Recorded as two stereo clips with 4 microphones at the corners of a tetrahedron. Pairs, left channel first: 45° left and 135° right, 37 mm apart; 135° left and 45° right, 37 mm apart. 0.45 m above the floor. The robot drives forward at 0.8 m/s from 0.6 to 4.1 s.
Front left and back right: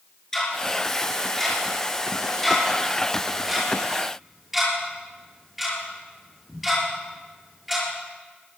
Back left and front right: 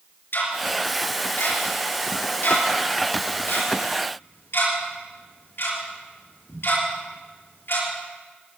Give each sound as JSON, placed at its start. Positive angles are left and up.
{"t": 0.3, "sound": "ticking", "azimuth_deg": 120, "distance_m": 6.5}